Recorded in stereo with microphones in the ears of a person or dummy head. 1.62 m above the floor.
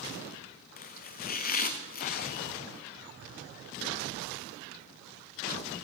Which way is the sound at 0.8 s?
40° left (ahead or behind).